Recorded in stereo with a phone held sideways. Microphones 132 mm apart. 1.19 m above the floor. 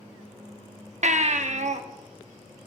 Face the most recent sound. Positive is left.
turn(degrees=-60)  # may be behind; listen again after turning